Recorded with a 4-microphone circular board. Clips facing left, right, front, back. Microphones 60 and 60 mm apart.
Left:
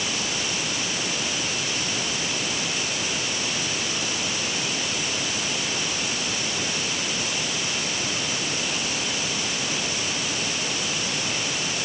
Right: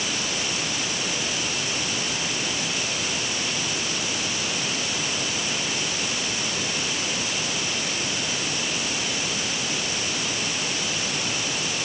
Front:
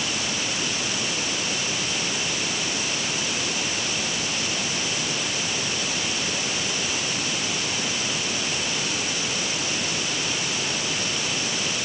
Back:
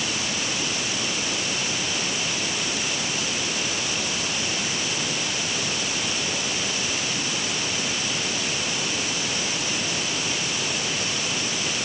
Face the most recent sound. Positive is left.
No sound to turn to.